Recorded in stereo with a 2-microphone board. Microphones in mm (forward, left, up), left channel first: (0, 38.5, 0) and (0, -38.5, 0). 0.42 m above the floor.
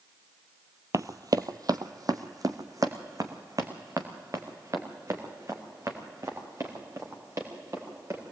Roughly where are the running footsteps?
Right.